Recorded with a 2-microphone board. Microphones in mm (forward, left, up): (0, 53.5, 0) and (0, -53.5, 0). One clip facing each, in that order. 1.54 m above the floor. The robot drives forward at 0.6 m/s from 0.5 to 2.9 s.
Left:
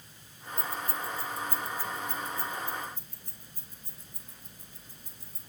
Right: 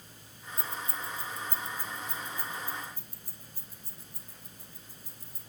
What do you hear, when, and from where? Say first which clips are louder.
0.6 s keys jangling: left 3 dB; 25° right (ahead or behind), 0.8 m; by 5.4 s 10° right (ahead or behind), 1.7 m